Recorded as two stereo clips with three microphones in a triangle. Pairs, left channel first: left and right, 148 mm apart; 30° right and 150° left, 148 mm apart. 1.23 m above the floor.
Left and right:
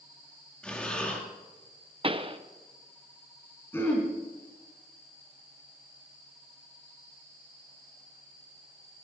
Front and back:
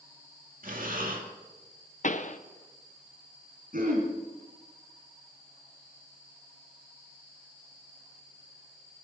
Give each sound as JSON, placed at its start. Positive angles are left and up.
{"t": 0.6, "sound": "breathing", "azimuth_deg": 175, "distance_m": 2.5}
{"t": 2.0, "sound": "a pop", "azimuth_deg": -45, "distance_m": 0.8}
{"t": 3.7, "sound": "throat clearing", "azimuth_deg": 165, "distance_m": 3.5}